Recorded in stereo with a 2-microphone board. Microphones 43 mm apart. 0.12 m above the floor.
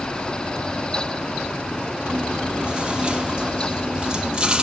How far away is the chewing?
About 4 m.